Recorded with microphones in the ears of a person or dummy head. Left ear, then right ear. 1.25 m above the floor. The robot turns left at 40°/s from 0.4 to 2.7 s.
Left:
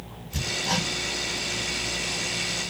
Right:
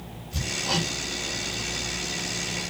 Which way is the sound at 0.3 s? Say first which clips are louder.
Left 1 dB; 20° left (ahead or behind).